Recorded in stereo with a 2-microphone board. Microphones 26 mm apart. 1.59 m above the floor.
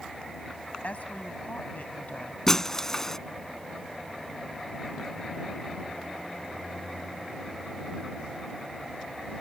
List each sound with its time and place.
0.8 s a woman speaking: 60° left (ahead or behind); by 2.4 s 65° left (ahead or behind)
2.5 s breaking glass: 20° left (ahead or behind)